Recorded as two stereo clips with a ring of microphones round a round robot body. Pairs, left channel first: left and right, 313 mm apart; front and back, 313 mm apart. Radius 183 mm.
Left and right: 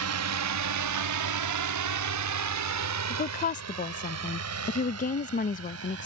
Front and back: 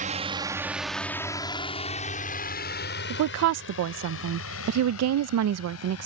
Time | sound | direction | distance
0.0 | a drone | 115° right | ?
3.1 | a woman speaking | 150° left | ?